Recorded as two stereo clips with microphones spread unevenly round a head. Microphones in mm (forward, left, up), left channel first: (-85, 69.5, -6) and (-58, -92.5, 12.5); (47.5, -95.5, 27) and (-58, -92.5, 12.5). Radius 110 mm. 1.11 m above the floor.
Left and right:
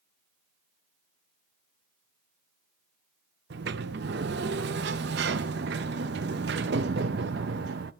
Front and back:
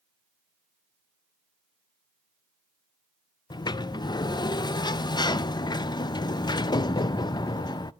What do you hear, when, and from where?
3.5 s a sliding door: 50° right, 0.6 m